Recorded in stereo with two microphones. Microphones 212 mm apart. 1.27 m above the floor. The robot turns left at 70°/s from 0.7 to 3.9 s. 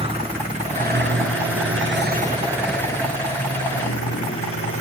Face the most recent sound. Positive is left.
turn(degrees=85)